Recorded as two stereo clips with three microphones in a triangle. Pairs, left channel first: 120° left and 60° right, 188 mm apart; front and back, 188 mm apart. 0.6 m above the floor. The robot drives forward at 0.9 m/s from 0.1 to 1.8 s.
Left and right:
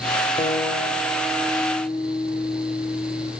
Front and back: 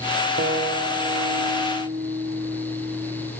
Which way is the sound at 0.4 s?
175° left.